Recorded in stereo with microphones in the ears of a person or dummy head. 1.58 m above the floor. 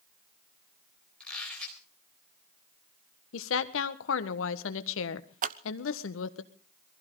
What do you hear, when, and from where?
1.2 s a squeak: 10° left (ahead or behind), 4 m
3.3 s a woman speaking: 75° left (ahead or behind), 1.4 m
5.4 s scissors: 45° right (ahead or behind), 0.6 m